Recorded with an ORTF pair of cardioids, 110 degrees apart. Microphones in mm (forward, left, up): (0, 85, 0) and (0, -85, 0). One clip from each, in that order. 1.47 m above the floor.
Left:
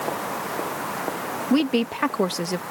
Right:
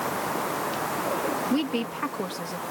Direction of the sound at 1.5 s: 35° left.